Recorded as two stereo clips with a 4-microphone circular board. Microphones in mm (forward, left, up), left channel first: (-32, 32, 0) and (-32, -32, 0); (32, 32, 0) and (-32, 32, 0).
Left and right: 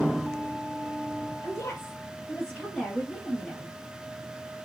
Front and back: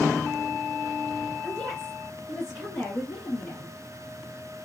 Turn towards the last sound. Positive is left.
turn(degrees=-70)